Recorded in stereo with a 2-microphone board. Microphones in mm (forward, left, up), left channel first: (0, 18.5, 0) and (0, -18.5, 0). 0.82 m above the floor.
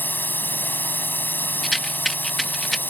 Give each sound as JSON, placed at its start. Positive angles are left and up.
{"t": 0.0, "sound": "a drone", "side_deg": 65}
{"t": 1.6, "sound": "a rattle", "side_deg": 0}